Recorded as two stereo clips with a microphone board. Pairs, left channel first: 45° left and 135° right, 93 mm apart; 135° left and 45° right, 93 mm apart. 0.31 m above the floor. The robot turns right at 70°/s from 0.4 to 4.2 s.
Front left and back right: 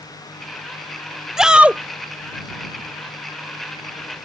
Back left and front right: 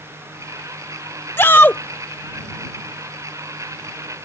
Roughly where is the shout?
Behind left.